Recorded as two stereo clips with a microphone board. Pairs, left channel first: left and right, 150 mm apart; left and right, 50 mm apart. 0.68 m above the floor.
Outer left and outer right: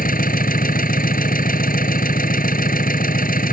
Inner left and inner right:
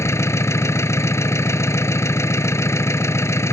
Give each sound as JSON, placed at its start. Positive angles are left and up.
{"t": 0.0, "sound": "an engine running", "side_deg": 70}